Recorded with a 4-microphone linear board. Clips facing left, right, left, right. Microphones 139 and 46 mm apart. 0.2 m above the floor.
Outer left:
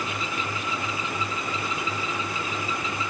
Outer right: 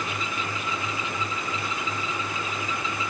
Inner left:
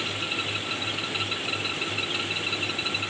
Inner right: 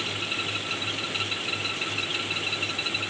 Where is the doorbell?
I don't hear a doorbell.